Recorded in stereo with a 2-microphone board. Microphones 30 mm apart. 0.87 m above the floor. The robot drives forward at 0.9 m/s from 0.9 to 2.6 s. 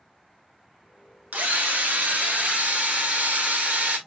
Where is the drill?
80° right, 1.6 m; by 4.0 s 55° right (ahead or behind), 1.9 m.